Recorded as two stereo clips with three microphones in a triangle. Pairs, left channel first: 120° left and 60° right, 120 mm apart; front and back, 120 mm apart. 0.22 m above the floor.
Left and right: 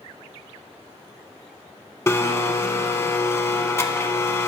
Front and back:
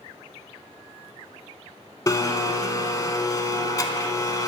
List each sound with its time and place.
2.1 s a blender: 55° left, 0.6 m